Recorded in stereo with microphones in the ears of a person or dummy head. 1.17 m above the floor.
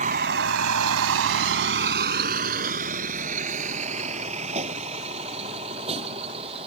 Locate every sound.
0.0 s a vehicle: 35° right (ahead or behind); by 6.7 s 30° right (ahead or behind)